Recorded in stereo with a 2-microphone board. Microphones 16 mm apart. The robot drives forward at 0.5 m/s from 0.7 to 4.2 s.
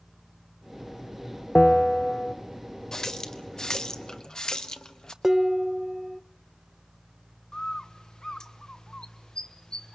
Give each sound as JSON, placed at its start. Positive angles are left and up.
{"t": 1.6, "sound": "a bell", "side_deg": 40, "distance_m": 1.0}
{"t": 2.9, "sound": "a running tap", "side_deg": 45, "distance_m": 1.6}
{"t": 5.2, "sound": "dishes clattering", "side_deg": -30, "distance_m": 0.7}
{"t": 7.5, "sound": "a bird", "side_deg": 60, "distance_m": 1.4}